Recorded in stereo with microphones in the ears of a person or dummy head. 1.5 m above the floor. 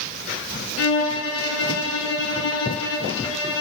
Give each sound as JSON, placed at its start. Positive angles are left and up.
{"t": 0.8, "sound": "a violin", "side_deg": 75, "distance_m": 4.5}